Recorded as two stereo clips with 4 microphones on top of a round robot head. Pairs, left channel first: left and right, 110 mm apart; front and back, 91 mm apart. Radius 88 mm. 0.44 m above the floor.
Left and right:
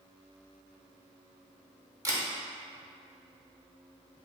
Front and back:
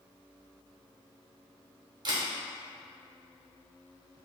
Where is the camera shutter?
145° right, 0.9 m.